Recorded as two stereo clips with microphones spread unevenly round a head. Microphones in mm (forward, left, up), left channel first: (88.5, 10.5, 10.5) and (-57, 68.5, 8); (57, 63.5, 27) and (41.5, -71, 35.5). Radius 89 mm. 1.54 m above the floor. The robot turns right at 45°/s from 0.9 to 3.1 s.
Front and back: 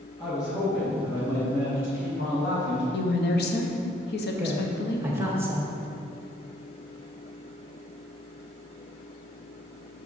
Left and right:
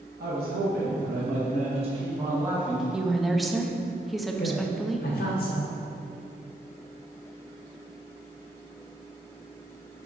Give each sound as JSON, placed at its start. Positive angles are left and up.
{"t": 0.2, "sound": "a man speaking", "azimuth_deg": -95, "distance_m": 1.6}
{"t": 2.9, "sound": "a woman speaking", "azimuth_deg": -15, "distance_m": 0.9}
{"t": 4.4, "sound": "a woman speaking", "azimuth_deg": 80, "distance_m": 1.7}